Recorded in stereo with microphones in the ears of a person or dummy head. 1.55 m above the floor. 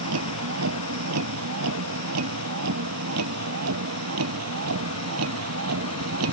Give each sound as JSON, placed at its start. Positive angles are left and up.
{"t": 0.0, "sound": "a vehicle", "side_deg": -80}